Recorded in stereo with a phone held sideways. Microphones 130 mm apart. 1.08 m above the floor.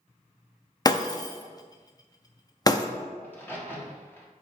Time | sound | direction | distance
0.8 | breaking glass | 30° left (ahead or behind) | 0.5 m
3.2 | a crack | 15° left (ahead or behind) | 1.3 m